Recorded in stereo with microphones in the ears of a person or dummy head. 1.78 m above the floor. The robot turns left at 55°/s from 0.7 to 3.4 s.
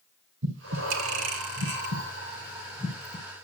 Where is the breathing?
60° right (ahead or behind), 3 m; by 3.2 s 15° left (ahead or behind), 3 m.